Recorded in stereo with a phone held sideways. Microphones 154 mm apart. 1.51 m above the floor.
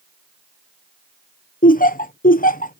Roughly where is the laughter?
Left.